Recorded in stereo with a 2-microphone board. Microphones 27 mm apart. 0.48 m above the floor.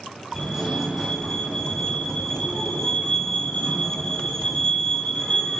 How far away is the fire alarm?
About 5.5 m.